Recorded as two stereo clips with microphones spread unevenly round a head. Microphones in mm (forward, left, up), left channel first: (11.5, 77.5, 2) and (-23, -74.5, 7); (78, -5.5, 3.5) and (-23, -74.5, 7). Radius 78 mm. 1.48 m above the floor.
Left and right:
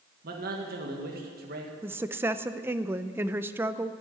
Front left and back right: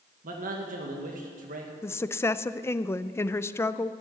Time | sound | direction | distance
0.2 | a man speaking | 135° right | 1.8 m
1.8 | a woman speaking | 30° right | 0.6 m